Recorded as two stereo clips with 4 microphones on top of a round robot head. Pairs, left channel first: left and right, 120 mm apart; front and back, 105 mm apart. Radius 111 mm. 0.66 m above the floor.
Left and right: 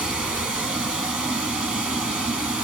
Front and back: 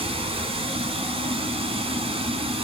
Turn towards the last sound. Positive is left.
turn(degrees=-170)